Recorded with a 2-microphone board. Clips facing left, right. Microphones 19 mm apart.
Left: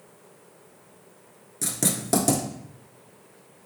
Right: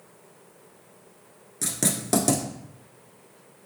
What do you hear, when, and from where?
1.6 s writing: 10° right (ahead or behind), 1.0 m